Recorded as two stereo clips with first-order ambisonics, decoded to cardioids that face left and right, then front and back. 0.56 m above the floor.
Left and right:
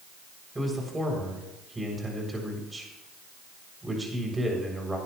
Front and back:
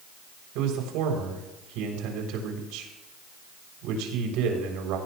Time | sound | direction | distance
0.6 | a man speaking | 170° right | 3.5 m